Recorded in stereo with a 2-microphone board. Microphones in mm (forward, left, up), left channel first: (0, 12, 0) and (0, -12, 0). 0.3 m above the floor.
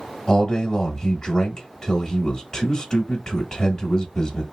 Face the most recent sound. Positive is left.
turn(degrees=15)  # may be behind; listen again after turning